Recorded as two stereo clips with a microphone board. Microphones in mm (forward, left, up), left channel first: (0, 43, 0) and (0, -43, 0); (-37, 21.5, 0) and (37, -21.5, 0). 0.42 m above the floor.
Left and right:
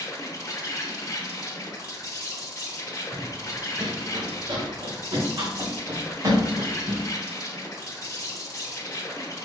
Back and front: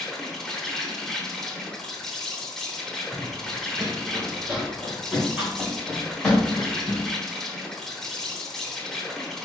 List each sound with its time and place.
0.0 s an insect: 65° left, 0.9 m
3.1 s running footsteps: 80° right, 1.0 m; by 7.1 s 125° right, 2.5 m